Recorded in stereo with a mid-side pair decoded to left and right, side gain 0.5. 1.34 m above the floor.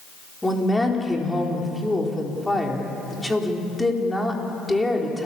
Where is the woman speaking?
10° left, 4.5 m.